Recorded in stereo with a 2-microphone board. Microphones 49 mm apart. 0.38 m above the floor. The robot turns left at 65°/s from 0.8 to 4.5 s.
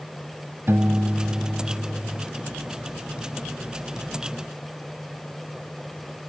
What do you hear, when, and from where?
0.7 s a piano: 110° right; by 2.3 s 155° left